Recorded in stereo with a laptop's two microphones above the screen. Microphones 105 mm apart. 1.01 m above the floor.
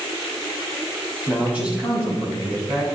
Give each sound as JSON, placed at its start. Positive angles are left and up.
{"t": 1.3, "sound": "a man speaking", "side_deg": -10, "distance_m": 6.5}